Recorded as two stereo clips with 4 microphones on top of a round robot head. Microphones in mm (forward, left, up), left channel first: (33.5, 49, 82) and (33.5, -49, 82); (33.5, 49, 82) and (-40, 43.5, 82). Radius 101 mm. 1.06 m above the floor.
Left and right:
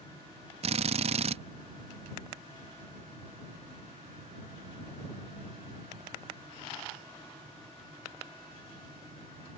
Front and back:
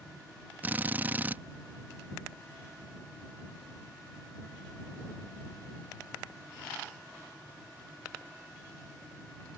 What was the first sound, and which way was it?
A drill, 105° right.